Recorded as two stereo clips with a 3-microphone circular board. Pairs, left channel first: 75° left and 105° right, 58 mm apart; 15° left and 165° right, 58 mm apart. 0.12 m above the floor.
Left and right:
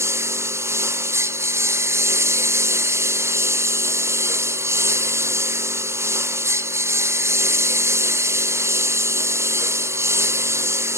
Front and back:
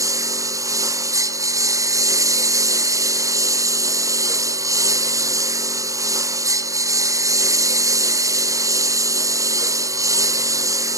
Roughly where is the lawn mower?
Behind right.